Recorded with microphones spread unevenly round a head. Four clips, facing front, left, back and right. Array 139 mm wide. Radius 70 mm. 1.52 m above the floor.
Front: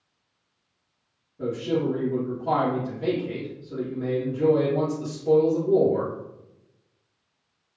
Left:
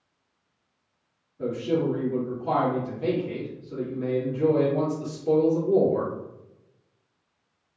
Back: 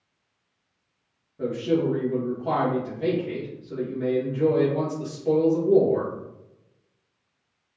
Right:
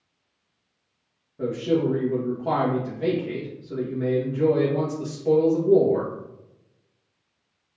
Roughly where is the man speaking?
Right.